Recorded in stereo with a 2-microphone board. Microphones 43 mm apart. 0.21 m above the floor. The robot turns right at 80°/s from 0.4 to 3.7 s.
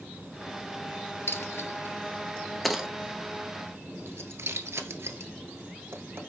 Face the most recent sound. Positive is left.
turn(degrees=-80)